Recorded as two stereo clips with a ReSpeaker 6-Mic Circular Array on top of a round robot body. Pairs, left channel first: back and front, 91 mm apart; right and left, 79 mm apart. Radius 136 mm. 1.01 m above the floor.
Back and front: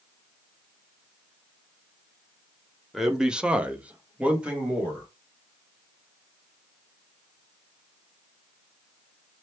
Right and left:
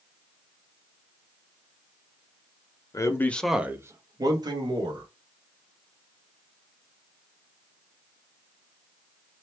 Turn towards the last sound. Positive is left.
turn(degrees=80)